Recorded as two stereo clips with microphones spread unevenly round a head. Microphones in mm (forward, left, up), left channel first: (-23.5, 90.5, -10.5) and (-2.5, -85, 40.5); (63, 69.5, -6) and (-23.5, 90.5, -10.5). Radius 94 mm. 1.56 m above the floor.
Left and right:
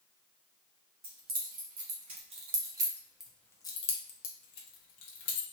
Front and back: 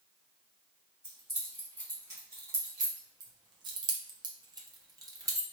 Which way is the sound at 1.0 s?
110° right.